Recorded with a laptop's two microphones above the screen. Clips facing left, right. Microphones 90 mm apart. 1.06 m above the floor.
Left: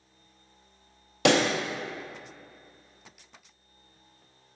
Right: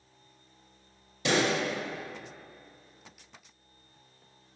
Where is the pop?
65° left (ahead or behind), 0.6 m.